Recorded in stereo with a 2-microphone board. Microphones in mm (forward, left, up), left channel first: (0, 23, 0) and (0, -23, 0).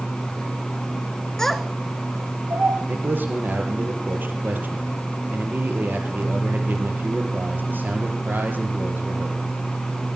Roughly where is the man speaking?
Right.